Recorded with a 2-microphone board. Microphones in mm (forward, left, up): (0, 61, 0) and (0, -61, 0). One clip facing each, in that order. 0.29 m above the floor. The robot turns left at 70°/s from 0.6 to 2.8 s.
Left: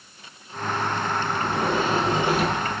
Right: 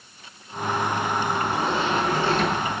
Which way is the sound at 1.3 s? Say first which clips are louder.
Even; 80° left.